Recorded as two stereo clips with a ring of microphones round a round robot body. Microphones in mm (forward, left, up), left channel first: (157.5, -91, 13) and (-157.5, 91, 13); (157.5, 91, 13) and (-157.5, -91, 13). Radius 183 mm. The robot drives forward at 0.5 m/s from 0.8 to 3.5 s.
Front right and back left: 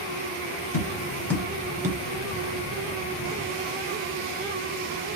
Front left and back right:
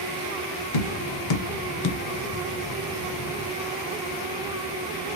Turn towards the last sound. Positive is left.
turn(degrees=140)